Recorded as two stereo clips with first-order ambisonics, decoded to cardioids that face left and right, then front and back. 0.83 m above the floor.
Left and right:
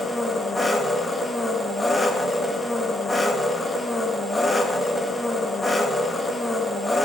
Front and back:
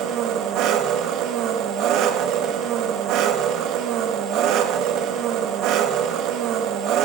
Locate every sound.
0.0 s an engine running: 170° left, 0.8 m